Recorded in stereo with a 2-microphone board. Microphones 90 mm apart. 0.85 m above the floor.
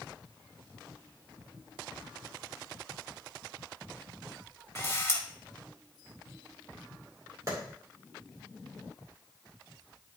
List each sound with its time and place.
4.8 s a camera shutter: 30° left (ahead or behind), 1.5 m
7.5 s a clap: 40° right (ahead or behind), 2.5 m